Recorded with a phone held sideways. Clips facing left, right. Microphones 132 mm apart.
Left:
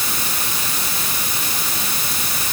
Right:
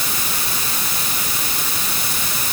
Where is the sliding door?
I don't hear a sliding door.